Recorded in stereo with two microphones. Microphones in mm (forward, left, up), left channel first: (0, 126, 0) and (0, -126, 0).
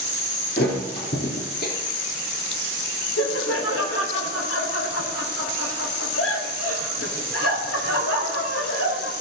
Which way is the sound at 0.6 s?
40° left (ahead or behind).